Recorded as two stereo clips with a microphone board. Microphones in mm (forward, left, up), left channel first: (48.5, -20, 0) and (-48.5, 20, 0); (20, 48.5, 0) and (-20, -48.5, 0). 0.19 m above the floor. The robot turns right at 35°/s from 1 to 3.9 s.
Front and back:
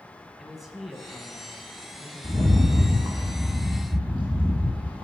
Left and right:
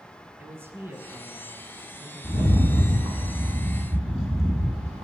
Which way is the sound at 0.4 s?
120° right.